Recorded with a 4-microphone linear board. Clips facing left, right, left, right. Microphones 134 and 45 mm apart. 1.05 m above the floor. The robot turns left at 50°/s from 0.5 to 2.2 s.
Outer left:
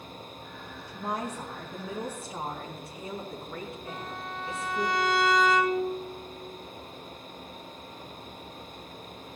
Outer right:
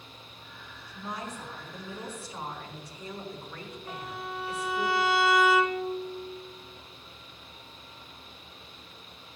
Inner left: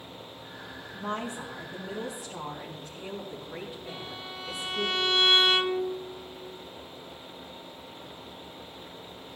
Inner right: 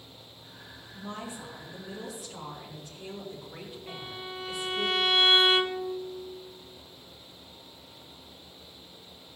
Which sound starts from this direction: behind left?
A woman speaking, at 0.9 s.